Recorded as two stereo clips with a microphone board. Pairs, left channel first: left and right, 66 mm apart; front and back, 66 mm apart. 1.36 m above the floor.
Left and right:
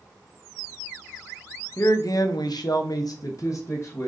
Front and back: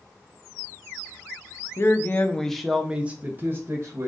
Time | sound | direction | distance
1.8 | a man speaking | 45° left | 0.7 m